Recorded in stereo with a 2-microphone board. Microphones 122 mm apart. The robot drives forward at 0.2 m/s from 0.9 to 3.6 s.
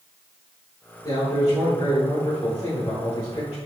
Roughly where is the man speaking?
Left.